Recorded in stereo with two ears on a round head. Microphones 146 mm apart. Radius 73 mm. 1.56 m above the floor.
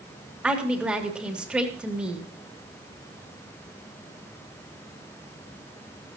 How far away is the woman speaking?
About 2.5 m.